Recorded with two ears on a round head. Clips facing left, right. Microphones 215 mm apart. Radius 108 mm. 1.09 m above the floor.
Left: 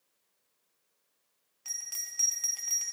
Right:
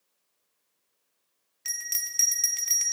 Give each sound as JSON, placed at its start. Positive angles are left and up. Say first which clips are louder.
{"t": 1.6, "sound": "a bell", "louder": "right 7 dB", "side_deg": -30, "distance_m": 0.7}